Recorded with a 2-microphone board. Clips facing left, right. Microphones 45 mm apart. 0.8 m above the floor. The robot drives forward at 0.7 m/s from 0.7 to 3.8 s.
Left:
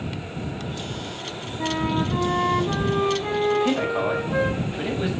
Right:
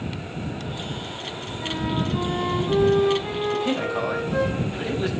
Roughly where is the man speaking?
Centre.